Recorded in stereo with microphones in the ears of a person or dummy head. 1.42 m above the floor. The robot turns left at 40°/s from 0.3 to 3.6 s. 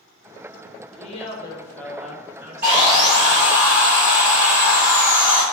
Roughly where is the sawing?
Behind right.